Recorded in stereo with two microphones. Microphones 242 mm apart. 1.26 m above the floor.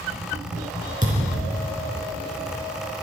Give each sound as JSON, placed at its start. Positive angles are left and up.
{"t": 1.0, "sound": "a thud", "side_deg": -35, "distance_m": 4.0}